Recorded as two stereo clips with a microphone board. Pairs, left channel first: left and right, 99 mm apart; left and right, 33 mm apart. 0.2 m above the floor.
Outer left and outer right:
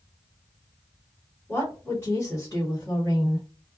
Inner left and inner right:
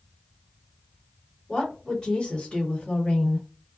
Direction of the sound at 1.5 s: 20° left (ahead or behind).